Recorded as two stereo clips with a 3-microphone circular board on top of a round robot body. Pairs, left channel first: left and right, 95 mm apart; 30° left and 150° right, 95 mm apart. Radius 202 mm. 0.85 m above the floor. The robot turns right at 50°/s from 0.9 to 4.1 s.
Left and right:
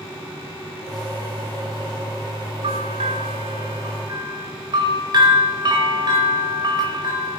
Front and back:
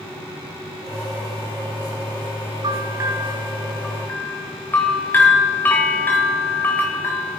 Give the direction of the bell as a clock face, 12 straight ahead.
4 o'clock.